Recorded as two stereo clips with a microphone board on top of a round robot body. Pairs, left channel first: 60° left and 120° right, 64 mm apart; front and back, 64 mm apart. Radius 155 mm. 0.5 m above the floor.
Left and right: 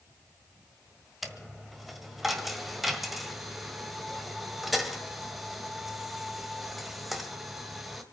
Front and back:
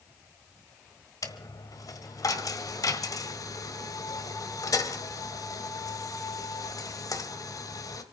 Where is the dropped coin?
30° right, 1.4 m.